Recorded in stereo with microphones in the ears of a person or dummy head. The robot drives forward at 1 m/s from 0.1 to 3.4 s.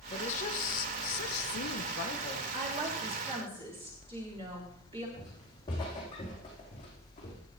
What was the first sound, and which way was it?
A woman speaking, 40° left (ahead or behind).